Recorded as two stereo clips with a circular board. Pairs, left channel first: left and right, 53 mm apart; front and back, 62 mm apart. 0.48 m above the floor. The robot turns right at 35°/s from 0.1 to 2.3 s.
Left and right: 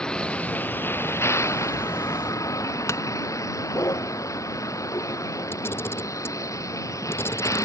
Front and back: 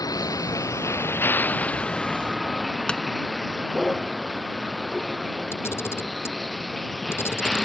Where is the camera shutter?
50° left.